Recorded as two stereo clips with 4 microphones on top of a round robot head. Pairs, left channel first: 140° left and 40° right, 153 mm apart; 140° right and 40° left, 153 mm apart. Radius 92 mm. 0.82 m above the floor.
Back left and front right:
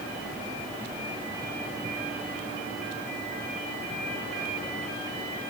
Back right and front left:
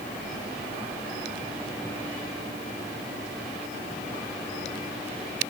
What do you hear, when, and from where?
Only background noise.